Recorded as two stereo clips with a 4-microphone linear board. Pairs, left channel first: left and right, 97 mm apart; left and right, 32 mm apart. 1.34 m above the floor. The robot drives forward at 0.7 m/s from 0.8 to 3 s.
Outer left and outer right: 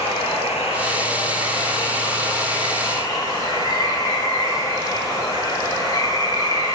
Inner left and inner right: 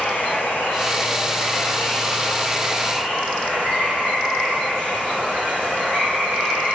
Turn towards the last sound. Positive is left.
turn(degrees=45)  # may be behind; listen again after turning